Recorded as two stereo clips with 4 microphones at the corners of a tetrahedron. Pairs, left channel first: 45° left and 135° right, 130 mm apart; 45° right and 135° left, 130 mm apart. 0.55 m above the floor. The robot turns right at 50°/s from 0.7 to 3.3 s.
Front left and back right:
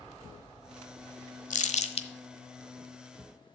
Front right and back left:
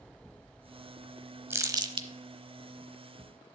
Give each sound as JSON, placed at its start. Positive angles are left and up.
{"t": 1.5, "sound": "crumpling", "azimuth_deg": 65, "distance_m": 1.0}